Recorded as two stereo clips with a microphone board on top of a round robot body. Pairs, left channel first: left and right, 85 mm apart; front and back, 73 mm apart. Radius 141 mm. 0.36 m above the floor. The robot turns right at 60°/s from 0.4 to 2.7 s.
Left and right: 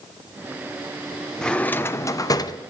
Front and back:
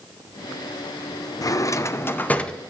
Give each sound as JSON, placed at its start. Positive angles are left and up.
{"t": 1.4, "sound": "a drawer", "azimuth_deg": 10, "distance_m": 0.6}